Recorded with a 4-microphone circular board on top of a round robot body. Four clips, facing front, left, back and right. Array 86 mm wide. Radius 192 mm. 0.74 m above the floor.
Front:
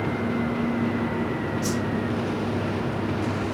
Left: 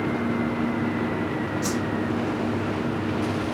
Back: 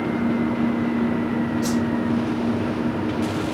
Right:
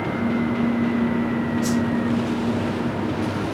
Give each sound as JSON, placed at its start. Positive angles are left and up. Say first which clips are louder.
{"t": 1.6, "sound": "a whoosh", "louder": "right 6 dB, back 4 dB", "azimuth_deg": 120, "distance_m": 4.0}